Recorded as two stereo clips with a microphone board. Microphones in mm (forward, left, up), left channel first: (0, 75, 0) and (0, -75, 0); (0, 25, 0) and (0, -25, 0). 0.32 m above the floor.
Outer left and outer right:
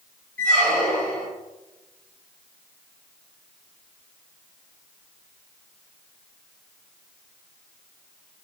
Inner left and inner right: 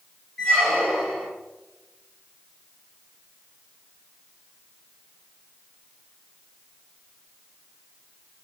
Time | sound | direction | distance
0.4 | a squeak | 5° left (ahead or behind) | 1.0 m